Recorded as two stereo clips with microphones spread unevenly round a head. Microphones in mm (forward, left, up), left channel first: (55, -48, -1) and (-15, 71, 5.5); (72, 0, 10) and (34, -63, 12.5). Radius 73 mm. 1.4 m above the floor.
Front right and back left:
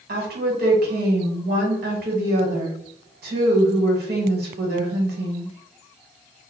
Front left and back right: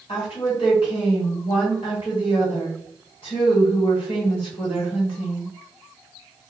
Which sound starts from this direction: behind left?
A woman speaking, at 0.1 s.